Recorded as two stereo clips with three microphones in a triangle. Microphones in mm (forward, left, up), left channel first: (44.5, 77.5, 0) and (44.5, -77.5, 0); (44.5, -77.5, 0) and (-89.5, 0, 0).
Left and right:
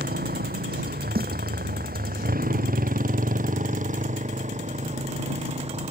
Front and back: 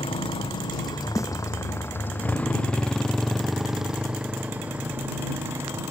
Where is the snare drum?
100° right.